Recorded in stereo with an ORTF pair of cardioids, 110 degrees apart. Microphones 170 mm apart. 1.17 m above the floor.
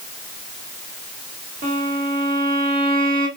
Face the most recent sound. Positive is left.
turn(degrees=-60)